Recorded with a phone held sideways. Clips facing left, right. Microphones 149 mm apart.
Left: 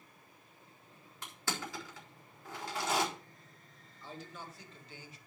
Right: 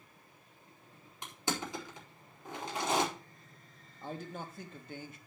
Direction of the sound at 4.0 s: 50° right (ahead or behind).